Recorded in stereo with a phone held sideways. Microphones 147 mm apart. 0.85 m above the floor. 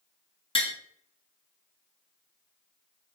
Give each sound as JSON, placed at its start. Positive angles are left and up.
{"t": 0.6, "sound": "tapping", "side_deg": 35, "distance_m": 0.6}